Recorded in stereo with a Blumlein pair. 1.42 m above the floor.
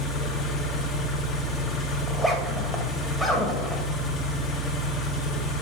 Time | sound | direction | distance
0.0 | an engine running | 25° left | 1.3 m
2.1 | a zipper | straight ahead | 1.5 m